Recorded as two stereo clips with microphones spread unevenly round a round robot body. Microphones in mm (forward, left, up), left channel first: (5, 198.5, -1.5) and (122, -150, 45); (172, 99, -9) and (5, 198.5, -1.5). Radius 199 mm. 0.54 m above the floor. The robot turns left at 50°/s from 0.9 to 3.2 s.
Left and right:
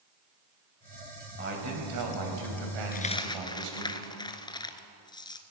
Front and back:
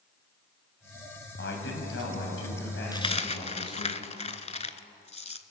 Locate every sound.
1.4 s a man speaking: 5° right, 3 m; by 3.9 s 95° right, 3 m
2.9 s a dropped coin: 40° left, 0.9 m; by 5.4 s 25° left, 0.9 m